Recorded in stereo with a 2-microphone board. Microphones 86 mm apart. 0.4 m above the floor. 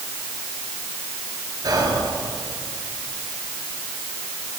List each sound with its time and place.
1.6 s whispering: 50° right (ahead or behind), 8 m